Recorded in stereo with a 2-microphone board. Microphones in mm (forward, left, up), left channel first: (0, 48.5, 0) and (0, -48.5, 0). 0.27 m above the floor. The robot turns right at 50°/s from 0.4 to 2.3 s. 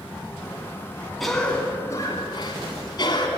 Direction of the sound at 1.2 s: Straight ahead.